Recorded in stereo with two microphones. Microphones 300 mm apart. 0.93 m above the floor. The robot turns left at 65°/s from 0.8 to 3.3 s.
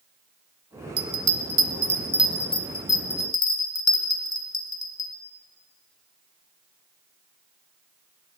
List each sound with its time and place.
1.0 s a bell: 80° right, 0.6 m; by 5.1 s 65° left (ahead or behind), 0.6 m